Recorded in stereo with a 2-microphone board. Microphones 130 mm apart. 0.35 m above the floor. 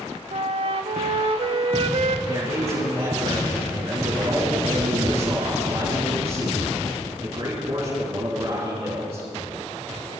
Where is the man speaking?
45° right (ahead or behind), 4 m.